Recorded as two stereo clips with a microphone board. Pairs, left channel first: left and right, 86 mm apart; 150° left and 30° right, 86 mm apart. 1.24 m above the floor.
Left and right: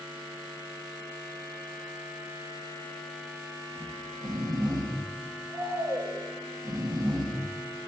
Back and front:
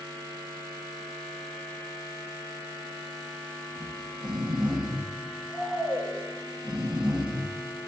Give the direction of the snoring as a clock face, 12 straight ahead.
4 o'clock.